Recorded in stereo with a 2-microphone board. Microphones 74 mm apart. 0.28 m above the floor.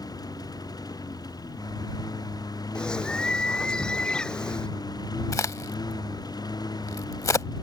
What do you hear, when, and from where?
0.0 s a lawn mower: 55° left (ahead or behind); by 7.6 s 60° left (ahead or behind)
2.8 s a bird: 10° left (ahead or behind)
5.3 s a crack: 45° left (ahead or behind)